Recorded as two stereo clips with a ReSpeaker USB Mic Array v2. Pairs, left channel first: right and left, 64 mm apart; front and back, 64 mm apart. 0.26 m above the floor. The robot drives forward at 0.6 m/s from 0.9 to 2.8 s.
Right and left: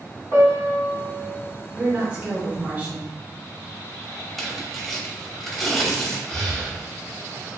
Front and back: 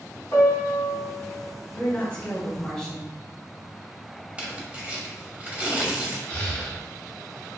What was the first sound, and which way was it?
A piano, 35° right.